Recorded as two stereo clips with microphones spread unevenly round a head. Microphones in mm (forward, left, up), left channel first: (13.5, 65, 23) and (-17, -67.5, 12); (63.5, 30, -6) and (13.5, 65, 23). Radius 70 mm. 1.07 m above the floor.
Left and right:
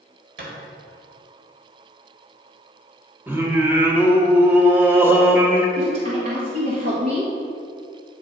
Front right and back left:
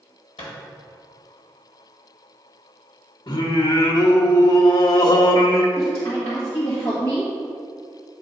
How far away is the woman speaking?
About 1.6 m.